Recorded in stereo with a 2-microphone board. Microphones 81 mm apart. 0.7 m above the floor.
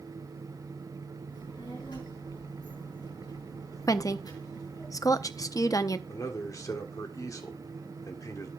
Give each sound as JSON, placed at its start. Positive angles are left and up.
{"t": 1.3, "sound": "a child speaking", "side_deg": 75, "distance_m": 7.0}
{"t": 3.9, "sound": "a woman speaking", "side_deg": 45, "distance_m": 0.7}
{"t": 6.1, "sound": "a man speaking", "side_deg": 45, "distance_m": 1.6}